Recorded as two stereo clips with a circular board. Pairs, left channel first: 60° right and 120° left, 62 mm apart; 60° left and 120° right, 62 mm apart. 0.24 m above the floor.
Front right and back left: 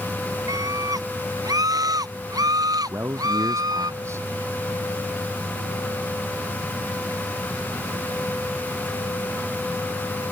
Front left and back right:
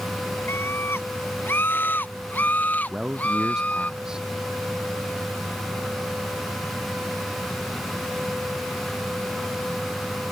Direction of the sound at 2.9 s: 160° left.